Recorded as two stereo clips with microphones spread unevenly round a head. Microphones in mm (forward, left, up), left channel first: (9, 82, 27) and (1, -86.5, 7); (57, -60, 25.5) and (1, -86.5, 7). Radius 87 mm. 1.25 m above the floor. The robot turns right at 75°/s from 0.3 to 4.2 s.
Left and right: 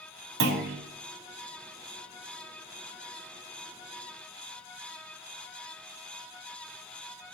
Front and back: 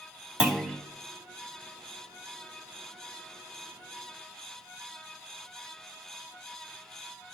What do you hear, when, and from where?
0.4 s a clunk: 75° right, 2.5 m; by 0.8 s 45° right, 2.5 m